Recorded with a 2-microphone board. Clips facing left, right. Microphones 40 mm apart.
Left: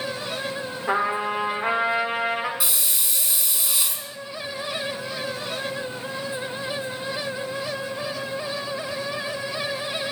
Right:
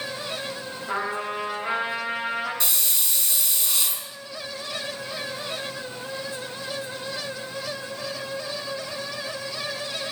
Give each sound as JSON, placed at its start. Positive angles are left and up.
{"t": 0.9, "sound": "a trumpet", "side_deg": 85, "distance_m": 3.0}
{"t": 2.6, "sound": "a hiss", "side_deg": 15, "distance_m": 2.5}